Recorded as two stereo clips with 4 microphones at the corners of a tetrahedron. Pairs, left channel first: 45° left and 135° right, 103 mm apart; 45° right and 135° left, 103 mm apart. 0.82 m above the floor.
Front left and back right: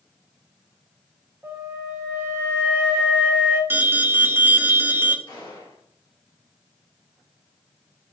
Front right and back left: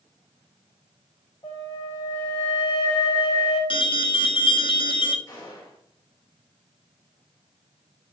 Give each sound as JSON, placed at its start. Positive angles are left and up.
{"t": 1.4, "sound": "a flute", "azimuth_deg": -60, "distance_m": 3.5}
{"t": 3.7, "sound": "an alarm", "azimuth_deg": -70, "distance_m": 0.7}
{"t": 5.3, "sound": "a gunshot", "azimuth_deg": 5, "distance_m": 3.0}